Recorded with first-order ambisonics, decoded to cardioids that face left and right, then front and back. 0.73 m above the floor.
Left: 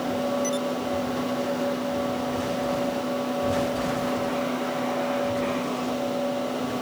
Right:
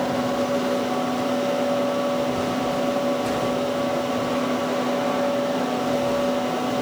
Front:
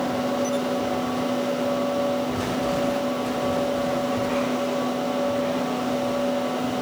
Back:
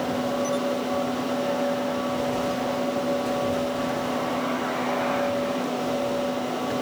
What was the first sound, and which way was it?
Only background noise.